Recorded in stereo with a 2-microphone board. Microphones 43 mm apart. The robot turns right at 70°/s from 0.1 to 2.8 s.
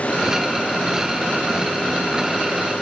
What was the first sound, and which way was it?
Only background noise.